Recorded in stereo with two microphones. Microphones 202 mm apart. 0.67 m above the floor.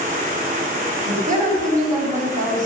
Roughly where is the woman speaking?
Right.